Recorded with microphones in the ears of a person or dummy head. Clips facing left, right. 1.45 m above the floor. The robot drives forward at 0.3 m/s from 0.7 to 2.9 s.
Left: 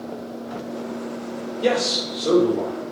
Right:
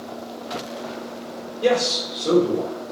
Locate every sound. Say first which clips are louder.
1.6 s a man speaking: right 2 dB; 5° left (ahead or behind), 1.9 m